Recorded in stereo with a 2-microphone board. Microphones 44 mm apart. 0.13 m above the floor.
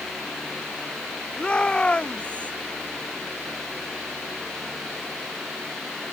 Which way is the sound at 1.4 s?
25° left (ahead or behind).